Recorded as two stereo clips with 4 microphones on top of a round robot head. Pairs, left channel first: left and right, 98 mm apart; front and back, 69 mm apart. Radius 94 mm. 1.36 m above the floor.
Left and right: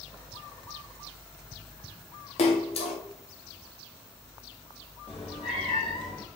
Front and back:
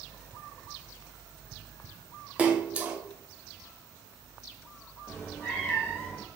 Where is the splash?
105° left, 0.6 m.